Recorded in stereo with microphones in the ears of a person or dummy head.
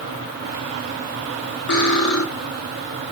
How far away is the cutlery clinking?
About 1.7 m.